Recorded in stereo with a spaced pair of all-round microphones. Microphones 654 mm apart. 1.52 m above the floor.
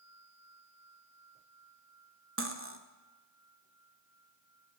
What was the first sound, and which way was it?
Cutlery clinking, 20° right (ahead or behind).